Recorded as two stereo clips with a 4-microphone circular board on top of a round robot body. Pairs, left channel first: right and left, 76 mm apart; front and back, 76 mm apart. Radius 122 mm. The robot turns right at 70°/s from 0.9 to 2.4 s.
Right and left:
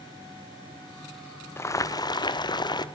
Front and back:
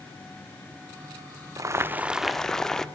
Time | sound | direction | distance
1.6 | boiling | 145° right | 1.6 m